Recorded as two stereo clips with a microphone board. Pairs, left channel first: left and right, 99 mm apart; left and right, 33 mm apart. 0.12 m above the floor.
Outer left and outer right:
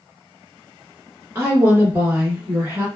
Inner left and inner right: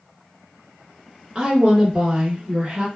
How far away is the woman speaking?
About 1.2 m.